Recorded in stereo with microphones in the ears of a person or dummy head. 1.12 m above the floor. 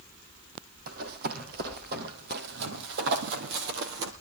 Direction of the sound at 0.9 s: 50° right (ahead or behind).